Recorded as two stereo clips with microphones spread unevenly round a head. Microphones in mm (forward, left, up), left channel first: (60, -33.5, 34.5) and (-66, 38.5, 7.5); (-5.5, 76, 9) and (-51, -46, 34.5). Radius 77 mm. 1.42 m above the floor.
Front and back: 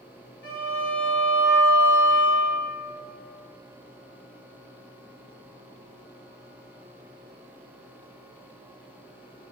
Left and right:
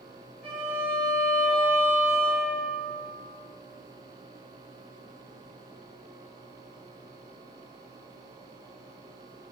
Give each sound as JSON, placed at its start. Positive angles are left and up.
{"t": 0.4, "sound": "a violin", "azimuth_deg": -30, "distance_m": 0.9}